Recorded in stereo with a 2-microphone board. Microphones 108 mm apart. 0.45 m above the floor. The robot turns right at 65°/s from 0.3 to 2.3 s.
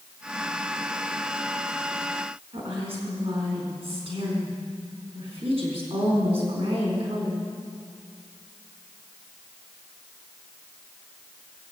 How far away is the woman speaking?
About 4 m.